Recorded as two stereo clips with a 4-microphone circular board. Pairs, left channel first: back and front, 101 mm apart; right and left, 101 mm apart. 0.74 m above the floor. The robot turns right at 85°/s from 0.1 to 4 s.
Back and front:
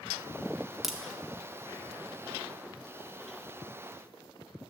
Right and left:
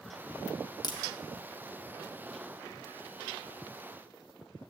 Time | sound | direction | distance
0.8 | a crack | 90° right | 1.0 m